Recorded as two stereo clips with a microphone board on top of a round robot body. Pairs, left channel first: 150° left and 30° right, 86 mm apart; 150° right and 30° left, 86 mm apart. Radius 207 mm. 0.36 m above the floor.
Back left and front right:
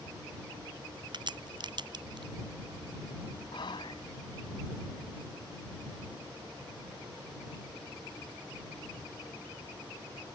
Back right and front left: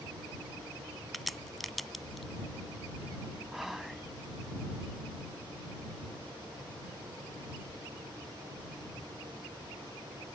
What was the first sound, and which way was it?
A crack, 60° right.